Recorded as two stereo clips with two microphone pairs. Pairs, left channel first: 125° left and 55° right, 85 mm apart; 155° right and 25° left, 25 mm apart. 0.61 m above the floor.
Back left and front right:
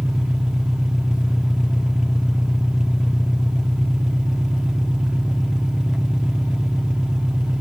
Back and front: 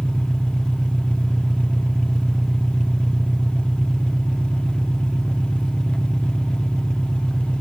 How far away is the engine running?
About 1.1 m.